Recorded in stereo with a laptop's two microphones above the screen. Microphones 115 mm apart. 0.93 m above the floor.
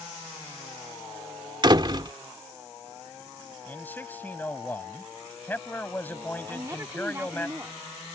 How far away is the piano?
I don't hear a piano.